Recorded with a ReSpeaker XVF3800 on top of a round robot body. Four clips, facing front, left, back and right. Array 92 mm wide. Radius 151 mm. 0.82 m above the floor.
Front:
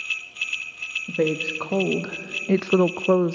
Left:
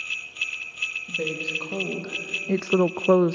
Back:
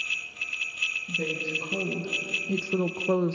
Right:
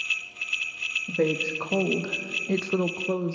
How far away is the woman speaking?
About 1.3 m.